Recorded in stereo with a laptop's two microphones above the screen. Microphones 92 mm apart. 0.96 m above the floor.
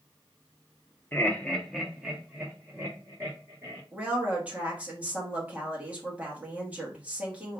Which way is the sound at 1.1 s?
20° left (ahead or behind).